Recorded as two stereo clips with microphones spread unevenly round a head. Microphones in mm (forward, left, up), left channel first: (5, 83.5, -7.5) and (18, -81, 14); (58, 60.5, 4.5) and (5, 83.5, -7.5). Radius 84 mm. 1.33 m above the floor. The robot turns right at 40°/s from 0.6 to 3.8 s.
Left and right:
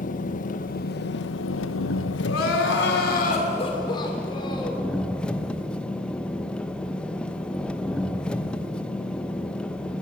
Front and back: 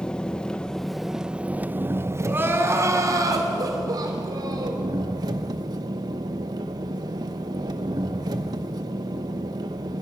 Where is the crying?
100° left, 3 m; by 4.9 s 160° left, 3 m.